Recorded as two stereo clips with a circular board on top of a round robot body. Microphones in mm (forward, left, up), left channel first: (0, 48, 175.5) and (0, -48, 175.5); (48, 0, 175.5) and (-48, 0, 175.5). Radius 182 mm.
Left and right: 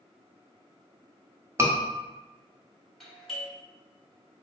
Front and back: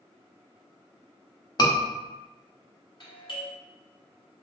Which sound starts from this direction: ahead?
A doorbell, at 3.0 s.